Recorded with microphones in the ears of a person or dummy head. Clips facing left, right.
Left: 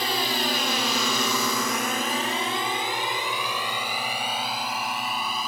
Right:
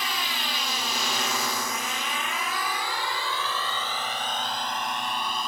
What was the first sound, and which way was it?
A drone, 40° left (ahead or behind).